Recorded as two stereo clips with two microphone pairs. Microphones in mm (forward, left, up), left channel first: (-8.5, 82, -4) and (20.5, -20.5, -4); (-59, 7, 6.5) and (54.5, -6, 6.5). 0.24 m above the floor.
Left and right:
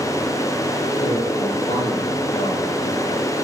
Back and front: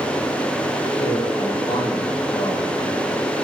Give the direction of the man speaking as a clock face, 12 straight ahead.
8 o'clock.